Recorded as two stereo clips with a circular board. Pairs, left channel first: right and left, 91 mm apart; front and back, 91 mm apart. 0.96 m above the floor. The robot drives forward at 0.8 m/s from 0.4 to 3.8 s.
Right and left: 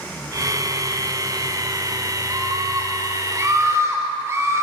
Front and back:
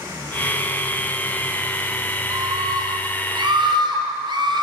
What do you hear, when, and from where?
2.3 s a scream: 140° left, 3 m; by 4.6 s 150° left, 4 m